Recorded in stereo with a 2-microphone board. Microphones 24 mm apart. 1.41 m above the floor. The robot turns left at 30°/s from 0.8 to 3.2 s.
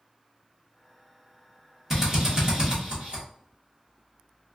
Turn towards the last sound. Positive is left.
turn(degrees=-50)  # may be behind; listen again after turning